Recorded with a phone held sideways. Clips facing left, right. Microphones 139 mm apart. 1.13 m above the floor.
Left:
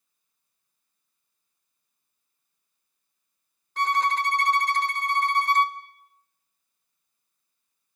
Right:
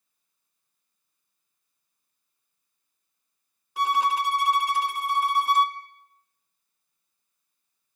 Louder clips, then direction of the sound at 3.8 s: Right 1 dB; 10° right (ahead or behind).